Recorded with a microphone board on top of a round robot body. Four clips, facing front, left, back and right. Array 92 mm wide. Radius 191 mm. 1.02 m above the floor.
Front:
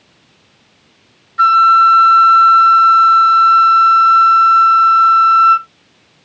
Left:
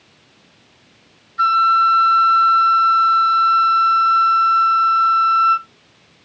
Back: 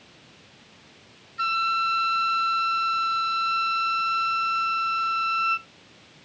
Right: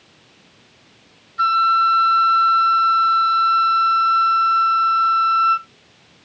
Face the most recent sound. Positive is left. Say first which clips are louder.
# left 2 dB, front 17 dB
turn(degrees=5)